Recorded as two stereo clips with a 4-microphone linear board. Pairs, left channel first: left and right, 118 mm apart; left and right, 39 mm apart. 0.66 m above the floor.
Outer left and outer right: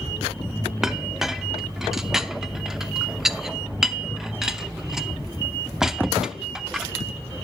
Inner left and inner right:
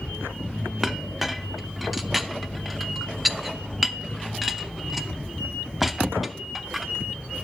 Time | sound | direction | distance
0.8 | a clink | 5° right (ahead or behind) | 0.5 m